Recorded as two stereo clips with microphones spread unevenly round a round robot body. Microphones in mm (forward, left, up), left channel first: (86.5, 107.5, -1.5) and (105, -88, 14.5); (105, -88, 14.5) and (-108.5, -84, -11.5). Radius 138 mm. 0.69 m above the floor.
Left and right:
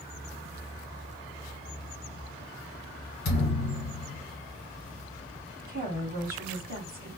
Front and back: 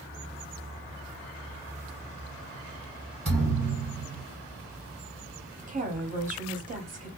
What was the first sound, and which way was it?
A thud, 110° left.